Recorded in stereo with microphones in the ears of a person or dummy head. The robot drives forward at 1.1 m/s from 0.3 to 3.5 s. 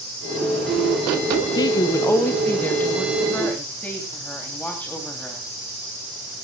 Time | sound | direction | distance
1.6 | a woman speaking | 25° left (ahead or behind) | 0.7 m